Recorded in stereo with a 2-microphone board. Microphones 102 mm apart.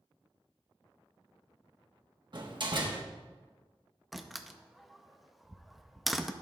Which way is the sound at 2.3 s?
50° right (ahead or behind).